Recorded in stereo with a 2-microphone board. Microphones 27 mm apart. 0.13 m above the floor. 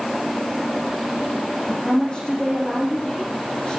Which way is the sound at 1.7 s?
25° left (ahead or behind).